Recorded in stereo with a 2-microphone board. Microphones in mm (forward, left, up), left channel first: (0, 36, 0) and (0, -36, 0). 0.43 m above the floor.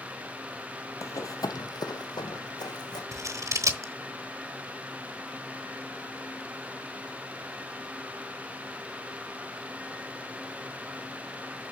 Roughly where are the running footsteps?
Left.